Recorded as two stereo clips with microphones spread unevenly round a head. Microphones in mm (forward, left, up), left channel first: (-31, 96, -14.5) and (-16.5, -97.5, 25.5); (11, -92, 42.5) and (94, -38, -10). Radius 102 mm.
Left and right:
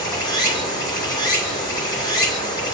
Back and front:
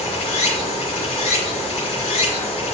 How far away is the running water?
About 2 m.